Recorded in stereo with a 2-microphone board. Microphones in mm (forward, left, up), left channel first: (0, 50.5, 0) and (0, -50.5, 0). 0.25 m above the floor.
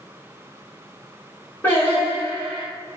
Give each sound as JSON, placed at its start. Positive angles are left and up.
{"t": 1.6, "sound": "singing", "side_deg": 20, "distance_m": 1.6}